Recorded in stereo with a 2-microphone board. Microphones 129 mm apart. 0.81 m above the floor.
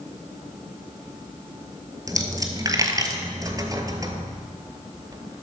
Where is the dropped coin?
25° right (ahead or behind), 1.1 m.